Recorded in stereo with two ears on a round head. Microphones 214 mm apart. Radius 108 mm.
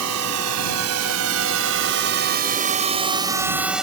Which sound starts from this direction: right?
A drone, at 0.0 s.